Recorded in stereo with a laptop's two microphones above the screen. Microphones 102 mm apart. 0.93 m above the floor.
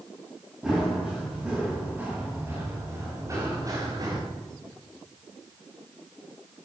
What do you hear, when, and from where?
0.6 s running footsteps: 5° right (ahead or behind), 8 m; by 4.2 s 40° right (ahead or behind), 5 m